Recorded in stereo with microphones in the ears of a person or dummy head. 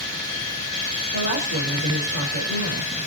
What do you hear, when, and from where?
1.1 s a woman speaking: 65° right (ahead or behind), 5 m